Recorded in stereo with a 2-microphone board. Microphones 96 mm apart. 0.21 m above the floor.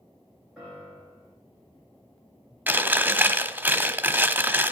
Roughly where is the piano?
Centre.